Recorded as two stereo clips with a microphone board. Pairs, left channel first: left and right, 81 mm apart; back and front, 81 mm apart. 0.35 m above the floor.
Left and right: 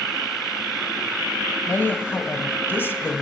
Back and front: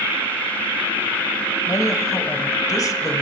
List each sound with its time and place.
1.7 s a woman speaking: 150° left, 1.4 m